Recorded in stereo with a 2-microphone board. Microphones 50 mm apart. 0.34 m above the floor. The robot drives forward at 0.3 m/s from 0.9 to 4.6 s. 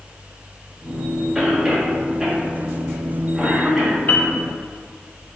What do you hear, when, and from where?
1.4 s a cough: 5° right (ahead or behind), 1.7 m
4.1 s a piano: 45° left (ahead or behind), 1.0 m